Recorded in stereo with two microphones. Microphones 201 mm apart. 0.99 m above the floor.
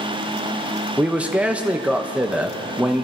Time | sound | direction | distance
1.0 | a man speaking | 5° right (ahead or behind) | 0.9 m